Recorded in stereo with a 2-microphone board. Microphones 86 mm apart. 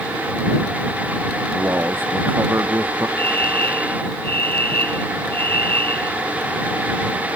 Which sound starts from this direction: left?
A fire alarm, at 3.2 s.